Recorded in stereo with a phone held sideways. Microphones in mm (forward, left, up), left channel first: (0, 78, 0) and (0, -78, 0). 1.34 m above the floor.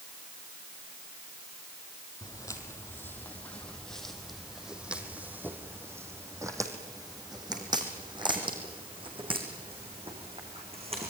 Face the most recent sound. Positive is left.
turn(degrees=-40)  # may be behind; listen again after turning